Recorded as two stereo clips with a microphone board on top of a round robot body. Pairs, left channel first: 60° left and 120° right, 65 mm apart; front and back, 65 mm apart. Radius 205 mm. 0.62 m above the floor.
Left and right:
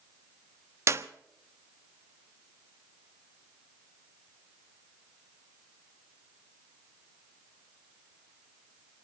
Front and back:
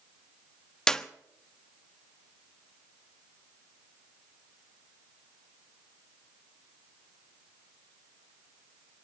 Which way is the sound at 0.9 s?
80° right.